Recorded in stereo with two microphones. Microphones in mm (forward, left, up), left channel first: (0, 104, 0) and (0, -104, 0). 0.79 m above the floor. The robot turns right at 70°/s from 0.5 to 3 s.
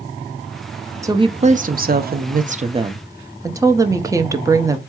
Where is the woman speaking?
160° right, 0.5 m; by 4.8 s 20° right, 0.5 m.